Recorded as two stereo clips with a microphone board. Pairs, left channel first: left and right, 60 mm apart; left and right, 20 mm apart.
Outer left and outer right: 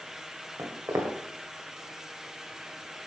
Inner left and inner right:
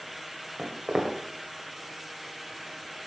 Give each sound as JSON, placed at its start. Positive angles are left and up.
{"t": 0.6, "sound": "footsteps", "side_deg": -45, "distance_m": 2.5}